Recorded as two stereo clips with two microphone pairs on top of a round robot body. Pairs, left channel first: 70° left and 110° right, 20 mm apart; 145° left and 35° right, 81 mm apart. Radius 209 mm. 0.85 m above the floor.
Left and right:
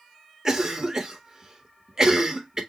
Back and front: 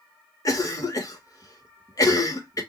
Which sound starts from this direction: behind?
A cough, at 0.5 s.